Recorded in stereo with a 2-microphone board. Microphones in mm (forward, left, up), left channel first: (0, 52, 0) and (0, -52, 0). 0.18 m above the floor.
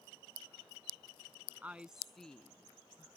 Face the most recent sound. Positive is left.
turn(degrees=25)  # may be behind; listen again after turning